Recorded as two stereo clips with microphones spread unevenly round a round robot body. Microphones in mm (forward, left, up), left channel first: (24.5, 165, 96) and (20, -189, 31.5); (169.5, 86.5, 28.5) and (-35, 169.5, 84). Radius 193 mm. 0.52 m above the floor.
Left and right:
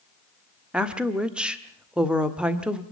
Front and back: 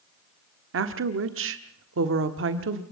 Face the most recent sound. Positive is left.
turn(degrees=-170)